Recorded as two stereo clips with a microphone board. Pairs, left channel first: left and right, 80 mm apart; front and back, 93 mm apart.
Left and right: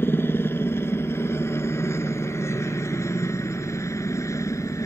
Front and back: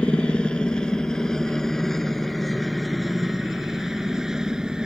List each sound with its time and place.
0.0 s a helicopter: 65° left; by 4.9 s 100° left